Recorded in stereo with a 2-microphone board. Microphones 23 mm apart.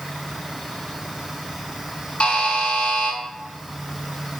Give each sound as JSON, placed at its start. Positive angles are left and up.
{"t": 2.2, "sound": "a buzzer", "side_deg": 50, "distance_m": 0.6}